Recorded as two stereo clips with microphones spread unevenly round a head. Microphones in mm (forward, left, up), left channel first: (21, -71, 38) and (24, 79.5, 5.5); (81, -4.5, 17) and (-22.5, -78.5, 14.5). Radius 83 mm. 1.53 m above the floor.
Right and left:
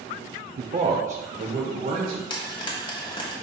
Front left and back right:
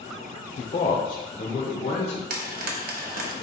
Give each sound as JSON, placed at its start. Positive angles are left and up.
{"t": 0.6, "sound": "a man speaking", "azimuth_deg": 60, "distance_m": 0.6}
{"t": 2.3, "sound": "frying", "azimuth_deg": -150, "distance_m": 1.0}